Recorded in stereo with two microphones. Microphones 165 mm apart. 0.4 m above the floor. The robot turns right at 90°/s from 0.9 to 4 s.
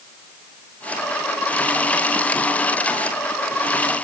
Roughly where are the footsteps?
No footsteps in this recording.